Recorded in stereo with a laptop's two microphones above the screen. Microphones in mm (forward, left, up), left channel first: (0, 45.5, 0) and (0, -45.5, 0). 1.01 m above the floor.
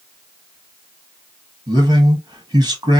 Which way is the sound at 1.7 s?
50° right (ahead or behind).